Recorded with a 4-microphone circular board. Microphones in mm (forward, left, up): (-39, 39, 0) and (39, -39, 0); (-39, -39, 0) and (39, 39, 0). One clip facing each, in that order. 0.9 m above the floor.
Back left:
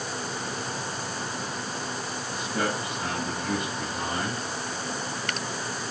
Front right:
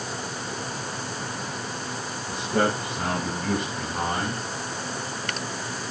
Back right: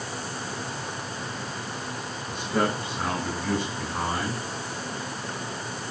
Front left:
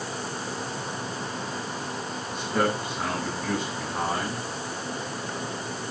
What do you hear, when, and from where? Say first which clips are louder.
2.3 s a man speaking: front right 6 dB, even; 40° right, 7.5 m